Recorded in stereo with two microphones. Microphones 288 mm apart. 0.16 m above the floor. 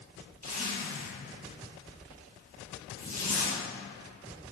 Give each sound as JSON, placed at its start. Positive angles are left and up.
{"t": 0.4, "sound": "a zipper", "side_deg": -70, "distance_m": 2.5}